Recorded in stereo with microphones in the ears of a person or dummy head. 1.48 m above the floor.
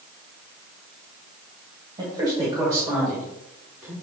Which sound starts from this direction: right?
A man speaking, at 2.0 s.